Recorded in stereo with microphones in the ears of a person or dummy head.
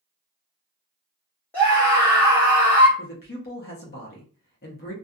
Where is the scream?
10° left (ahead or behind), 0.9 m.